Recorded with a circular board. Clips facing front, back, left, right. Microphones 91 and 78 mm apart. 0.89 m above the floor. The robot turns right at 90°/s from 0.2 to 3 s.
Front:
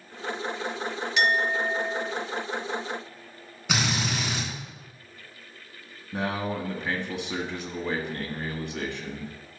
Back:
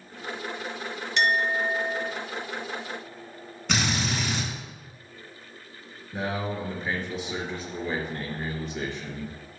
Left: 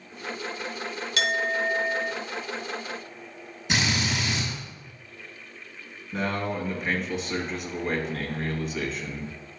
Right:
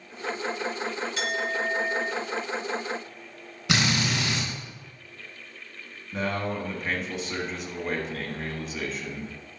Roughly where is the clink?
Left.